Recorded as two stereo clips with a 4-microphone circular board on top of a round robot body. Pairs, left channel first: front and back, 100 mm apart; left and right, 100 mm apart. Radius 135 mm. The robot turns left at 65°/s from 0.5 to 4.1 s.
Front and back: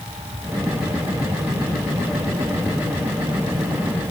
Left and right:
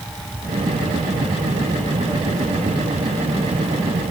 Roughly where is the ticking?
No ticking in this recording.